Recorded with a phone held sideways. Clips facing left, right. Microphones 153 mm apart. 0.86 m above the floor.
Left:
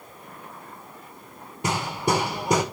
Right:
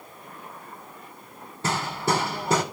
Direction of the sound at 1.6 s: 15° left (ahead or behind).